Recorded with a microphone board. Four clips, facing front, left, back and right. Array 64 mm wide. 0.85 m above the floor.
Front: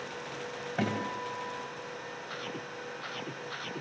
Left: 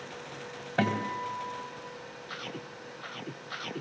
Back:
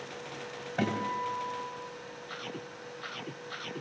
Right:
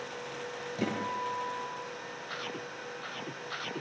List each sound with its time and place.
0.8 s a guitar: 85° left, 4.5 m